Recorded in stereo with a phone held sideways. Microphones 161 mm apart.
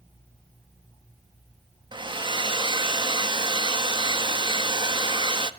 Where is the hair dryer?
30° right (ahead or behind), 1.4 m.